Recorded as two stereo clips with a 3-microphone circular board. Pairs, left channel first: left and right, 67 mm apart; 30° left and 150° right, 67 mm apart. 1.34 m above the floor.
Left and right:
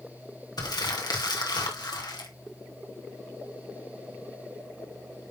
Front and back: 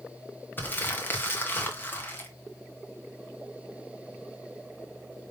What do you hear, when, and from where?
0.6 s crumpling: 90° left, 2.0 m